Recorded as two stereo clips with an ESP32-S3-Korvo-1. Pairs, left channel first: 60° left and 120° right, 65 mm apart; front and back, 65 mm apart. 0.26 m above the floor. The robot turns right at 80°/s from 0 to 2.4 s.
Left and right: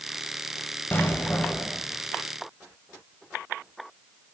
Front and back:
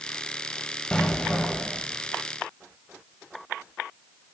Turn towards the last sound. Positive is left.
turn(degrees=180)